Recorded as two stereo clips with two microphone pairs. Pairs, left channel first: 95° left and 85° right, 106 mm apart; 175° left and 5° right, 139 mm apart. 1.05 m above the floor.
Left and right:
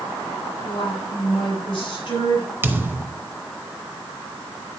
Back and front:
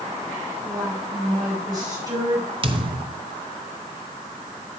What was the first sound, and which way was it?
A woman speaking, 55° left.